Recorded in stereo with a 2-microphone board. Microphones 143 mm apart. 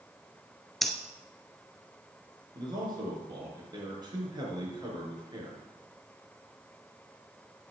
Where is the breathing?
Centre (ahead or behind), 1.1 m.